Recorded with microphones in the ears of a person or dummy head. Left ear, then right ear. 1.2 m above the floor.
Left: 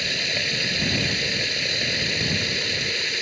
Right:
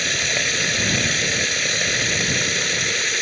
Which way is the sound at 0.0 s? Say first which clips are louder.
Right 3 dB; 40° right (ahead or behind).